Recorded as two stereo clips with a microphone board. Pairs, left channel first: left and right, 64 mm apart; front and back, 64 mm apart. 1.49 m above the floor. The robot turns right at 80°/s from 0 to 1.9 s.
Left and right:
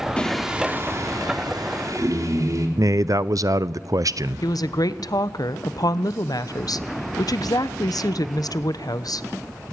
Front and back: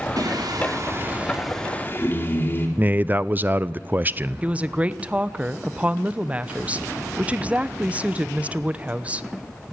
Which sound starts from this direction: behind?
Singing, at 0.2 s.